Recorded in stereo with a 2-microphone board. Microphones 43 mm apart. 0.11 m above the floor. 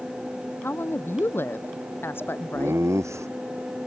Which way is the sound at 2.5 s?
75° right (ahead or behind).